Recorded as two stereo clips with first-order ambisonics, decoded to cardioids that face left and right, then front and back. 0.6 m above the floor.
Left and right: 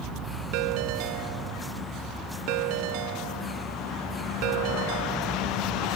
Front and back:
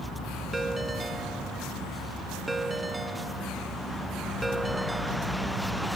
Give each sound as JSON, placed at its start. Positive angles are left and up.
{"t": 0.5, "sound": "a ringtone", "azimuth_deg": -100}